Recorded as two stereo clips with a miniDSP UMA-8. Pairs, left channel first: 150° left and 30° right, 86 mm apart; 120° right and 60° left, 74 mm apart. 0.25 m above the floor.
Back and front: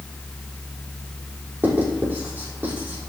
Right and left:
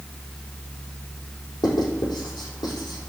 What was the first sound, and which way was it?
Writing, 95° right.